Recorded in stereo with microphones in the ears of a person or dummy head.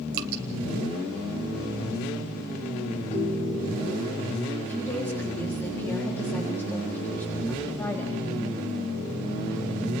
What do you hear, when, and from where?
0.1 s dripping: 55° right (ahead or behind), 2.5 m
3.1 s a ringtone: 45° left (ahead or behind), 6 m
4.6 s a woman speaking: 15° left (ahead or behind), 4 m